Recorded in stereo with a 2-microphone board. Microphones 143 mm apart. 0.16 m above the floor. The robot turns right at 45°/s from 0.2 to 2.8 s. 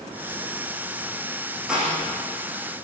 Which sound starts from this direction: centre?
A door slam, at 1.7 s.